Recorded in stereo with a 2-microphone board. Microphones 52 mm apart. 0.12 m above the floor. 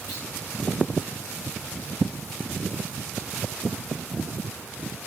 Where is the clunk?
60° left (ahead or behind), 9.5 m.